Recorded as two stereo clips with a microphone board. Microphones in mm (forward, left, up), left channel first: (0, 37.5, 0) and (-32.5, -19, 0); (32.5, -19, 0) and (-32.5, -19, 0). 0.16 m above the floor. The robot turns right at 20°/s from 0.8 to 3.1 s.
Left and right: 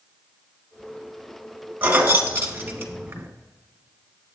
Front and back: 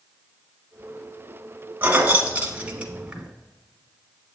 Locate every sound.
1.8 s keys jangling: 145° right, 1.1 m; by 3.3 s 120° right, 1.1 m